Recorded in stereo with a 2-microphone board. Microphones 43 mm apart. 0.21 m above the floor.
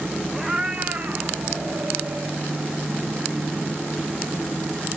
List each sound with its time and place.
0.3 s a cat meowing: 15° right (ahead or behind), 1.5 m; by 2.4 s 60° right (ahead or behind), 3 m